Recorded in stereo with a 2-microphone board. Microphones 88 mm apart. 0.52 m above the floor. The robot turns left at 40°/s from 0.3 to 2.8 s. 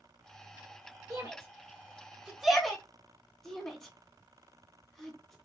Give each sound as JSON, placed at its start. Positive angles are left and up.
{"t": 1.1, "sound": "a shout", "side_deg": -40, "distance_m": 0.9}